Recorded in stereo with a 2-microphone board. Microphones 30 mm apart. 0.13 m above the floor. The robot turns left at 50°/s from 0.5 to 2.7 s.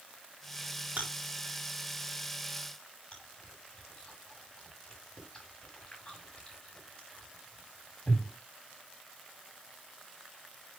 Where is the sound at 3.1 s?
25° left (ahead or behind), 5.5 m.